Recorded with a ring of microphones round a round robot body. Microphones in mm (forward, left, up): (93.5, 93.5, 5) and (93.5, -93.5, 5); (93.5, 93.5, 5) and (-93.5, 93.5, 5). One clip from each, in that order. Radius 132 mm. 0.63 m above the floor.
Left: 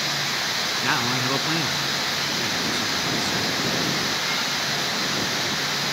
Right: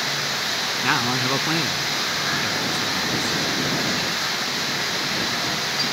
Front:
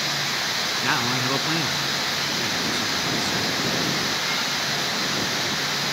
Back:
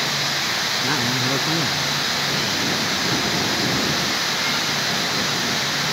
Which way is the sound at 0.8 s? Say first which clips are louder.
Right 3 dB, back 1 dB; 20° right.